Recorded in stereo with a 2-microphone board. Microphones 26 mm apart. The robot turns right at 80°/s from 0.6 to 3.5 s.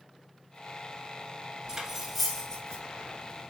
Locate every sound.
1.7 s cutlery clinking: 30° right (ahead or behind), 0.9 m; by 2.8 s 40° left (ahead or behind), 0.9 m